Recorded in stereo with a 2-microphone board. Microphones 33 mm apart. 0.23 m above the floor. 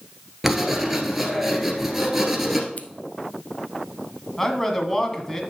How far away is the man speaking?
About 1.4 m.